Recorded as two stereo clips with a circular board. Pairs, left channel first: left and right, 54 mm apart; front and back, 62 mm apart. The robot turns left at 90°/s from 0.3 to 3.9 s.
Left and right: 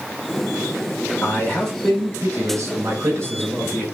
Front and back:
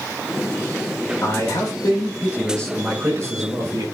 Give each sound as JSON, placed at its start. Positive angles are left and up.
{"t": 1.2, "sound": "a man speaking", "azimuth_deg": 45, "distance_m": 6.0}